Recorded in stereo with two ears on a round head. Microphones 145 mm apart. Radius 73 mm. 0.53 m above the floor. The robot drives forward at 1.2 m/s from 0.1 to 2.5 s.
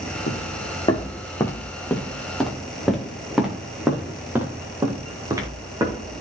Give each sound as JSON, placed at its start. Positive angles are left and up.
{"t": 0.3, "sound": "footsteps", "side_deg": 45, "distance_m": 2.0}